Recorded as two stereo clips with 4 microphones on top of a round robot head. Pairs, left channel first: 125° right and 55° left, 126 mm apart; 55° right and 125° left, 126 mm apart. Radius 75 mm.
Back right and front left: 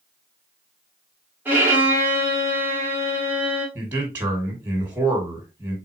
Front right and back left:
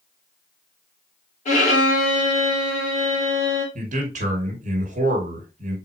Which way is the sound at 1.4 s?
20° right.